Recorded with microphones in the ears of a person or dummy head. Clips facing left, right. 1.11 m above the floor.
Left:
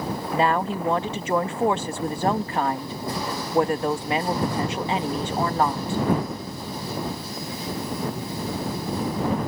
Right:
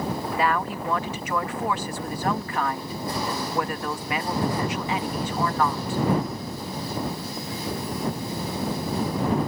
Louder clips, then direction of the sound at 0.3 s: Left 5 dB; 20° left (ahead or behind).